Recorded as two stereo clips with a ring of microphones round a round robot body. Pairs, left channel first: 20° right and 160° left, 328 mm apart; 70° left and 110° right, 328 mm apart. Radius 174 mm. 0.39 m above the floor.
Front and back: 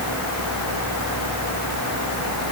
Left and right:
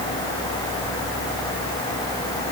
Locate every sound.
Only background noise.